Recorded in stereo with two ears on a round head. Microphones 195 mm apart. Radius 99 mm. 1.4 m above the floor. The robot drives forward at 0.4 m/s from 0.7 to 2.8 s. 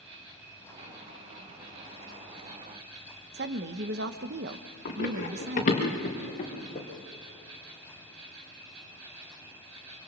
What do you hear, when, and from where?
0.0 s an insect: 60° right (ahead or behind), 6 m; by 10.1 s 70° right (ahead or behind), 5.5 m
3.3 s a woman speaking: 45° right (ahead or behind), 1.1 m
4.8 s running footsteps: 40° left (ahead or behind), 6.5 m; by 6.9 s 30° left (ahead or behind), 5.5 m